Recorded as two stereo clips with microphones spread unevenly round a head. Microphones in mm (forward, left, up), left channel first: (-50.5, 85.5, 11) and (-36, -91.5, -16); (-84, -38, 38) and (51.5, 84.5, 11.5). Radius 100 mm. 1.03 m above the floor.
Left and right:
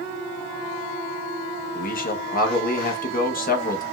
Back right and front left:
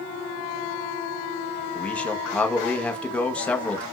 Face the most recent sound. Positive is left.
turn(degrees=135)